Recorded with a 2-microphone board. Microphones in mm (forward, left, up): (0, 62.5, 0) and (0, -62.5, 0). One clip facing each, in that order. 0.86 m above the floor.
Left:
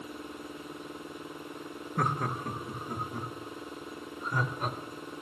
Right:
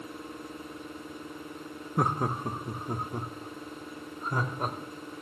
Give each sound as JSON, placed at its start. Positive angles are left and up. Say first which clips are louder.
{"t": 2.0, "sound": "laughter", "louder": "right 3 dB", "side_deg": -20, "distance_m": 0.8}